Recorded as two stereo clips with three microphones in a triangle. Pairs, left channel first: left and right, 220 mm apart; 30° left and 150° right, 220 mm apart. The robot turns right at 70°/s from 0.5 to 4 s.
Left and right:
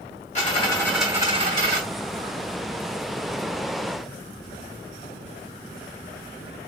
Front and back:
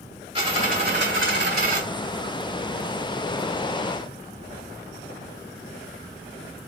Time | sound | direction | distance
0.3 | a dropped coin | 145° left | 2.5 m